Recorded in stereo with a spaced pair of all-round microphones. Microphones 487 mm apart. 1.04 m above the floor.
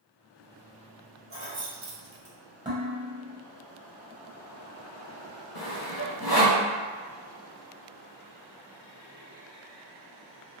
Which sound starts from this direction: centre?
Dishes clattering, at 2.6 s.